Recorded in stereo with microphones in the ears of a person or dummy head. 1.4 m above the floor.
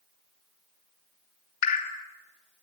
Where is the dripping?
50° left (ahead or behind), 2.5 m.